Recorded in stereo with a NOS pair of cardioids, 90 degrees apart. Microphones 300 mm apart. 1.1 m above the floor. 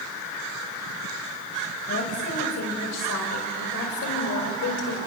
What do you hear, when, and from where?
1.9 s a woman speaking: 50° left, 6 m; by 5.0 s 70° left, 4.5 m